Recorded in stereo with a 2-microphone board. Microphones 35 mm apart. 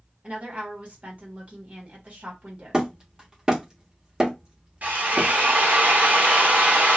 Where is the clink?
No clink in this recording.